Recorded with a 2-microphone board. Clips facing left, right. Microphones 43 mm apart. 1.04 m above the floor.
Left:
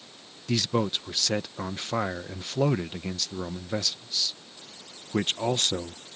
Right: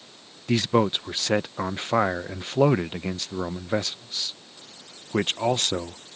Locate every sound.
0.5 s a man speaking: 25° right (ahead or behind)